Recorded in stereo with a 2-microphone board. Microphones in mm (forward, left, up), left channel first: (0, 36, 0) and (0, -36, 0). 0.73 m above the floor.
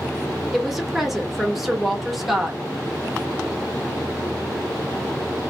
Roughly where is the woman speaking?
Centre.